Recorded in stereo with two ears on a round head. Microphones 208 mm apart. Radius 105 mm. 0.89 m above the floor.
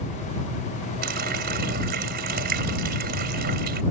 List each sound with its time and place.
1.0 s a running tap: 40° right (ahead or behind)